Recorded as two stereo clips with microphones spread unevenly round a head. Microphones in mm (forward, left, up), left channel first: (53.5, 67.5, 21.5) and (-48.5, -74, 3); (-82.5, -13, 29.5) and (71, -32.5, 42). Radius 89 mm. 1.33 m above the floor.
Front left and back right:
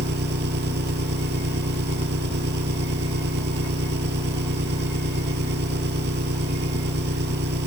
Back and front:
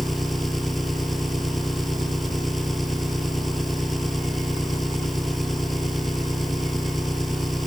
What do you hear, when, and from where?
0.0 s an engine running: 95° right